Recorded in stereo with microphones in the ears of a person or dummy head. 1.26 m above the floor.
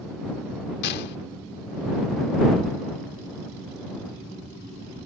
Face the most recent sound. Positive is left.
turn(degrees=60)  # may be behind; listen again after turning